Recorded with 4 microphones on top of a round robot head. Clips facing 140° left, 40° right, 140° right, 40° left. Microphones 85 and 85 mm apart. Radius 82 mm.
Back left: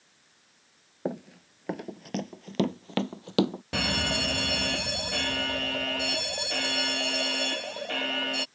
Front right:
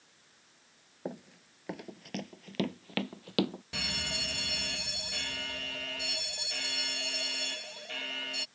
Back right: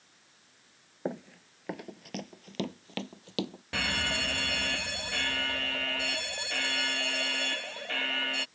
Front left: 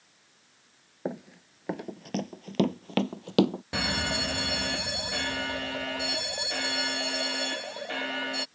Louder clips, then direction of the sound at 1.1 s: Back left 8 dB, front left 1 dB; 125° left.